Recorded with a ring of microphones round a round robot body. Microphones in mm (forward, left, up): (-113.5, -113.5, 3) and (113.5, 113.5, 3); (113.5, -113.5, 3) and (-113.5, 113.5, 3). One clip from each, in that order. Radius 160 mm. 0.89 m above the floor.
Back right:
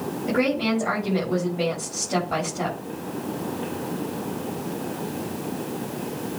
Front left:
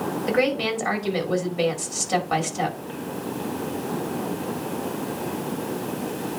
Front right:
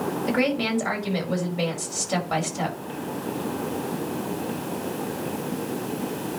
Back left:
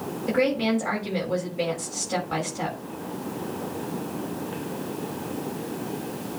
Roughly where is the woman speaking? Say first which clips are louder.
Front left 1 dB, back left 2 dB; ahead.